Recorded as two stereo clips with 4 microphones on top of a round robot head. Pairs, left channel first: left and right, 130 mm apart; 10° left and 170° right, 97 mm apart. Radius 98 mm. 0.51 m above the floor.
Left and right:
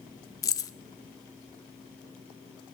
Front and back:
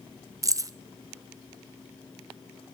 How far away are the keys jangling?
About 0.6 m.